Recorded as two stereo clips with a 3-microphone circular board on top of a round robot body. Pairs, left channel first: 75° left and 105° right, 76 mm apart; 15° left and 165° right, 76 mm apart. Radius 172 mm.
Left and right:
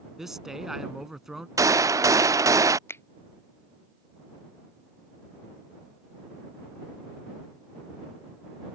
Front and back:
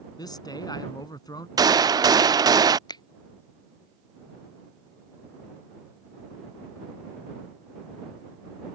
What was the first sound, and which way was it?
A man speaking, 20° right.